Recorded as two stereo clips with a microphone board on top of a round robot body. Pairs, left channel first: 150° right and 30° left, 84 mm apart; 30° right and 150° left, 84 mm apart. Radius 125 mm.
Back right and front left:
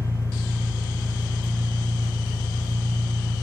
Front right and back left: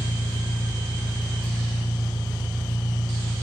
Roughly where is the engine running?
Behind right.